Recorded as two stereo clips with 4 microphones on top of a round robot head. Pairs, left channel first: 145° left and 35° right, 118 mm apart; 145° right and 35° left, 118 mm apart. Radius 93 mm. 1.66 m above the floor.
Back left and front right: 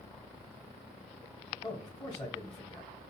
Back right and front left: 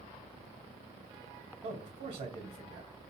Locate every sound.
1.6 s a man speaking: 85° left, 2 m